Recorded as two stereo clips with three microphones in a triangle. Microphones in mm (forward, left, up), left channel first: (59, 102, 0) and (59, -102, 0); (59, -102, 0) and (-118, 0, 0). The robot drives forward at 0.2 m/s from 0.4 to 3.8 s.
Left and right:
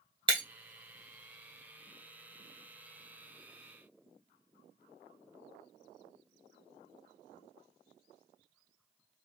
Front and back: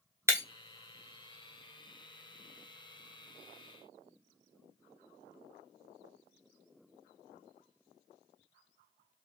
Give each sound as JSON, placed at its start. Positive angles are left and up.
{"t": 0.3, "sound": "breaking glass", "azimuth_deg": -140, "distance_m": 1.1}